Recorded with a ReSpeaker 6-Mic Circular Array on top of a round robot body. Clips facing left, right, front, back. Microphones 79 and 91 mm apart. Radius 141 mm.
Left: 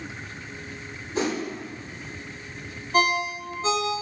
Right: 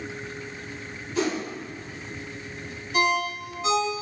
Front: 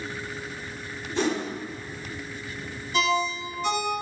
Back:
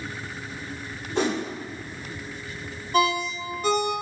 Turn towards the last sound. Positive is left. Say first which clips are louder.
# left 1 dB, back 2 dB
turn(degrees=140)